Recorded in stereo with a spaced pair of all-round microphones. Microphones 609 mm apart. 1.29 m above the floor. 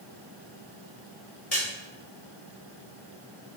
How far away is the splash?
About 5 m.